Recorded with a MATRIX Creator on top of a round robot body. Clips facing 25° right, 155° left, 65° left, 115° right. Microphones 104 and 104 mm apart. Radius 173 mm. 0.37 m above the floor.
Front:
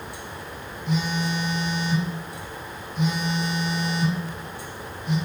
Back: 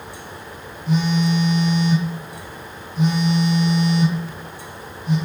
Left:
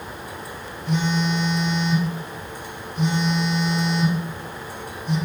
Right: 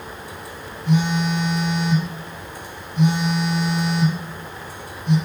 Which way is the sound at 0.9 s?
145° right.